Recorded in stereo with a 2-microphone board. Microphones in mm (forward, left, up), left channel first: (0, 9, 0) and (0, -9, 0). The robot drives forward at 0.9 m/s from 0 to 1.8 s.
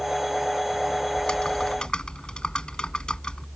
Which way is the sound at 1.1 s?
65° left (ahead or behind).